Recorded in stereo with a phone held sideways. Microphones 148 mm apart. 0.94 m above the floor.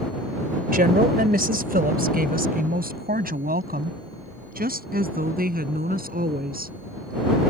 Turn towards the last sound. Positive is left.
turn(degrees=-85)